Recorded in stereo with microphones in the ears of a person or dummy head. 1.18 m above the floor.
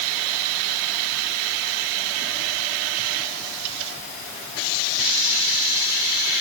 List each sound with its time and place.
Only background noise.